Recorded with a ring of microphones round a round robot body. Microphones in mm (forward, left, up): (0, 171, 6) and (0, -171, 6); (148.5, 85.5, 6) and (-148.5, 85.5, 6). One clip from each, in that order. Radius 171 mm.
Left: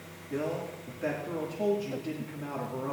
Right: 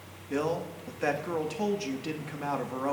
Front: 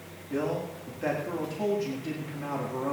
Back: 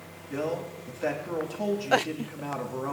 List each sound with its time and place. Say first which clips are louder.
0.3 s a man speaking: right 3 dB, even; 105° right, 1.6 m